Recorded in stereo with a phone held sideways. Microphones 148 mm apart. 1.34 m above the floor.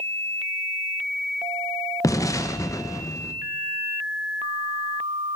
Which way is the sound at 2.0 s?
20° left (ahead or behind).